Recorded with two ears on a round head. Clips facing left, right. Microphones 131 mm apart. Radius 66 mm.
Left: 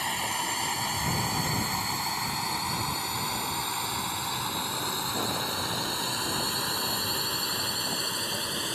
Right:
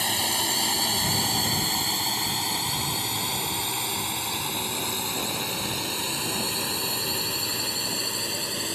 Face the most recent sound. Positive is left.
turn(degrees=-15)  # may be behind; listen again after turning